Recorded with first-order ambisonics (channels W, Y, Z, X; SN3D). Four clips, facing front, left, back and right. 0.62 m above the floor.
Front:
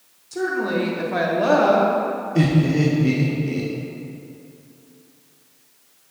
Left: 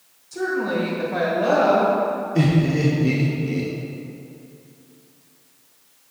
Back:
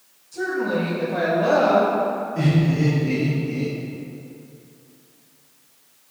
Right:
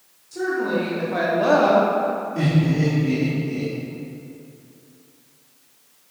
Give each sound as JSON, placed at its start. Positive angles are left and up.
{"t": 0.3, "sound": "a woman speaking", "azimuth_deg": 10, "distance_m": 2.0}
{"t": 2.4, "sound": "laughter", "azimuth_deg": 40, "distance_m": 1.0}